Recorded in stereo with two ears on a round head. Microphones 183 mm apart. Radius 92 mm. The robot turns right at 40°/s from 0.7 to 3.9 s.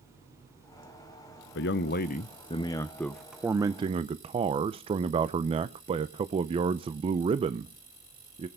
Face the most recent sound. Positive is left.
turn(degrees=-150)